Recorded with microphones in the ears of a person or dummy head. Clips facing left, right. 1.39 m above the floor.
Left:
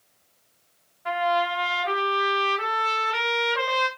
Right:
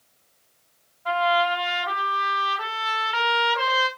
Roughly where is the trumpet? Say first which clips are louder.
Right 2 dB; left.